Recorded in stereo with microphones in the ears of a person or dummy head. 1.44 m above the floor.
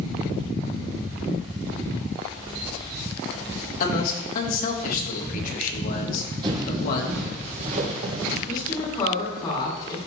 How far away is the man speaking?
About 1.9 m.